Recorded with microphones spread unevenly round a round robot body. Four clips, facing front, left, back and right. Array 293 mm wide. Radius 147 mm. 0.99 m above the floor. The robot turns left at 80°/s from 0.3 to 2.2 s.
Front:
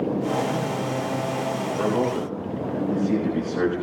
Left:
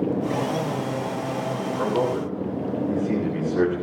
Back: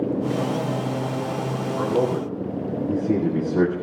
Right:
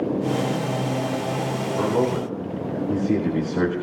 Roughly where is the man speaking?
Behind right.